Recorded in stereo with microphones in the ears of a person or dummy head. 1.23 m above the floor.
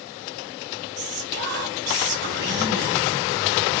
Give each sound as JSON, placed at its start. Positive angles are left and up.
{"t": 1.0, "sound": "whispering", "side_deg": -50, "distance_m": 0.9}